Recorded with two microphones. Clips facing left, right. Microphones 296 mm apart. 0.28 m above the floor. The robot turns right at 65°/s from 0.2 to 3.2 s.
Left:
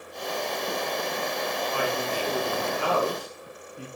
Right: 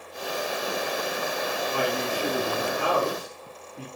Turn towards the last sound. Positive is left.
turn(degrees=-25)